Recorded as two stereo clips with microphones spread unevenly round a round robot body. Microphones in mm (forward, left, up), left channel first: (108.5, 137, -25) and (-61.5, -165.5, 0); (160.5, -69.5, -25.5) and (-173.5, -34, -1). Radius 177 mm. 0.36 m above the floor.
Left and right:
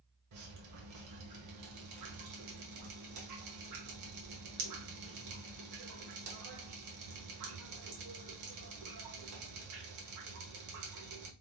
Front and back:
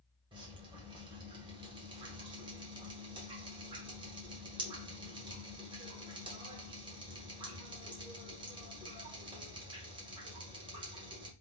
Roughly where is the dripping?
Right.